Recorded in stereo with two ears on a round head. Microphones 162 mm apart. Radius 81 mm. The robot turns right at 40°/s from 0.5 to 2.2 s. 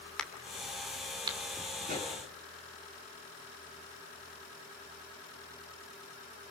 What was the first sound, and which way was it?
A crack, 5° left (ahead or behind).